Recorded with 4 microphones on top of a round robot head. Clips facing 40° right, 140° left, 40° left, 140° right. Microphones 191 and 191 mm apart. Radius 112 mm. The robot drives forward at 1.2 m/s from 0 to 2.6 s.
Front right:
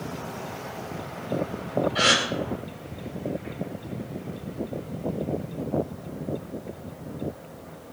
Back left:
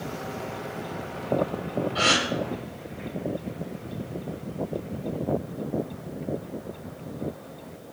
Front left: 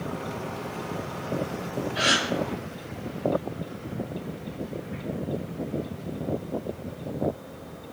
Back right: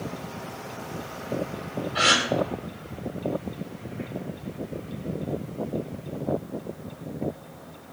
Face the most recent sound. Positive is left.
turn(degrees=-120)